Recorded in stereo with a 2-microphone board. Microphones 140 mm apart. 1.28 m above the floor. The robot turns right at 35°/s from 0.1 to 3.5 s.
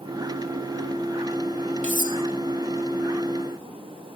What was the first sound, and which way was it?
Cutlery clinking, 55° right (ahead or behind).